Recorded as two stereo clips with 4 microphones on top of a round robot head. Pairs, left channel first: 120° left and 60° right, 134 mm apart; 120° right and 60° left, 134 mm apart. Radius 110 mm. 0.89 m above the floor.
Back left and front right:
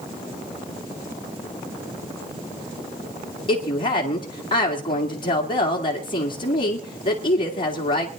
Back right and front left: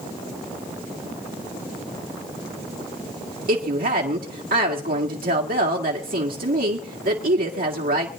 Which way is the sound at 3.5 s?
65° left.